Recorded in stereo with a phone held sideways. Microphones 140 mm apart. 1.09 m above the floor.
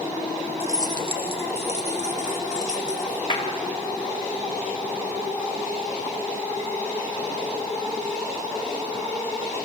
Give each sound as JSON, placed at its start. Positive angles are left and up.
{"t": 0.6, "sound": "keys jangling", "side_deg": -15, "distance_m": 0.8}
{"t": 3.3, "sound": "a clap", "side_deg": 35, "distance_m": 3.5}